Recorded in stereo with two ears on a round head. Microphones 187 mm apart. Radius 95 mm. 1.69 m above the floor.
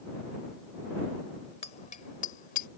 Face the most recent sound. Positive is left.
turn(degrees=45)  # may be behind; listen again after turning